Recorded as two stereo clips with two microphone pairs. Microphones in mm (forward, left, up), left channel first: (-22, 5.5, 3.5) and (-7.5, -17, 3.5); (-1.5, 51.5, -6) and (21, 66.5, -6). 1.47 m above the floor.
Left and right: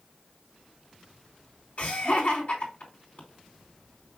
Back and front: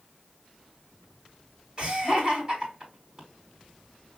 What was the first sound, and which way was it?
Laughter, 100° left.